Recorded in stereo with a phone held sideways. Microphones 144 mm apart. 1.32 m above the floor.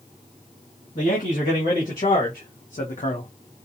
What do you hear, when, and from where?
0.9 s a man speaking: 70° left (ahead or behind), 1.9 m; by 3.3 s 55° left (ahead or behind), 0.6 m